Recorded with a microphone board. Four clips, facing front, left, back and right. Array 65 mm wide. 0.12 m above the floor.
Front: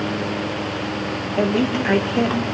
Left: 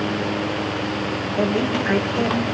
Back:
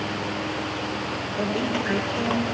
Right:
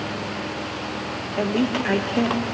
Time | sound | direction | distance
1.4 | a woman speaking | 30° right | 3.5 m